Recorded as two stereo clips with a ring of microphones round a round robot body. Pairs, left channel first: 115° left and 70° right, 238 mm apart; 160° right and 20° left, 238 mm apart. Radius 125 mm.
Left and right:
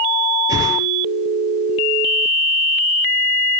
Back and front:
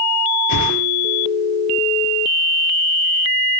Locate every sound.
0.5 s a whoosh: 145° right, 6 m